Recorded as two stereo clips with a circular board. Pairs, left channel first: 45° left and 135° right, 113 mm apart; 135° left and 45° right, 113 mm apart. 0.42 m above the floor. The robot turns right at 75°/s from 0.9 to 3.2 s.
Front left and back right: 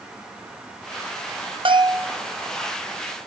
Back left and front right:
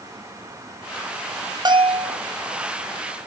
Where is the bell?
95° right, 0.8 m; by 2.2 s 55° right, 0.8 m.